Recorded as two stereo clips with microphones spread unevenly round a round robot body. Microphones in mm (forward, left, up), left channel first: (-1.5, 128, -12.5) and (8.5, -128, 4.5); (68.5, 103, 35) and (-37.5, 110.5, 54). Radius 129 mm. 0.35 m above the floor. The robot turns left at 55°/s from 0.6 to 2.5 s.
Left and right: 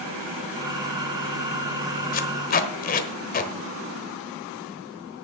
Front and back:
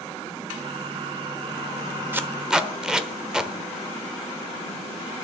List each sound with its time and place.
2.1 s tape being pulled: 105° left, 1.1 m; by 3.5 s 85° left, 1.1 m